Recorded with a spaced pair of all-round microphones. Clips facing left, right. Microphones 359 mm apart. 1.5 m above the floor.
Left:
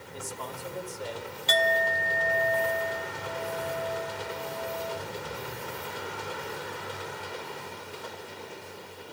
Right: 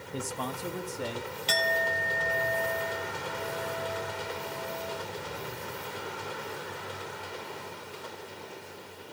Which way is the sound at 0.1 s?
70° right (ahead or behind).